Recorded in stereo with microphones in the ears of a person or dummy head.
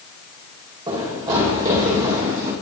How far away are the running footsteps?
About 4.5 m.